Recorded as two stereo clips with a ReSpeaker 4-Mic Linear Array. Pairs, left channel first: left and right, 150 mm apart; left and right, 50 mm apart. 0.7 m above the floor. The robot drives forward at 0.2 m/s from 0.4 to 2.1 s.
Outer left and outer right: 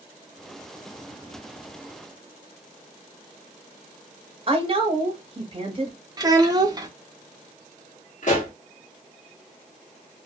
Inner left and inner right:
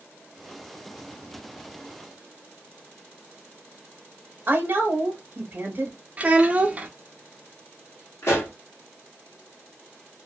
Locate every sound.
4.5 s a woman speaking: 40° right (ahead or behind), 0.9 m
6.2 s a child speaking: 25° right (ahead or behind), 0.5 m
8.2 s a pop: 55° left (ahead or behind), 1.4 m